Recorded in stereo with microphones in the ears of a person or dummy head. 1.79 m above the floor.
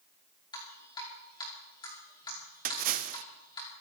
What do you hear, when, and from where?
0.5 s dripping: 25° left (ahead or behind), 4.5 m
2.6 s a splash: 50° right (ahead or behind), 0.8 m